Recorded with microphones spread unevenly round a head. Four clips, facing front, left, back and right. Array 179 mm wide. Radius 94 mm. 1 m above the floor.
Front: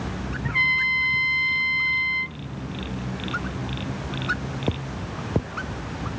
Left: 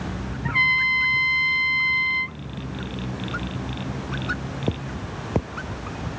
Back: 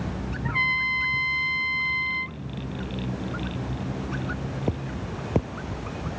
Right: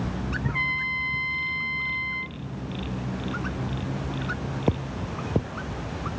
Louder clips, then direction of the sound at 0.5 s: Left 5 dB, front 2 dB; 90° left.